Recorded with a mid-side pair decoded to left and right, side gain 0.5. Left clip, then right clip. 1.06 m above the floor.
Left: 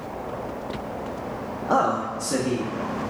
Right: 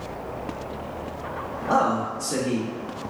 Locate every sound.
1.7 s a man speaking: 10° left, 0.6 m; by 2.7 s 45° left, 1.3 m